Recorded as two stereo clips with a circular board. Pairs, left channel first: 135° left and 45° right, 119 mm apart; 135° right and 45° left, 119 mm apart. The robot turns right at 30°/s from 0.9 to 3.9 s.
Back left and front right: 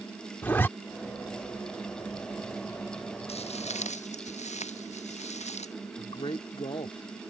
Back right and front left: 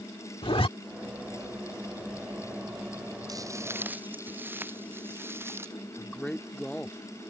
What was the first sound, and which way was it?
A zipper, 155° right.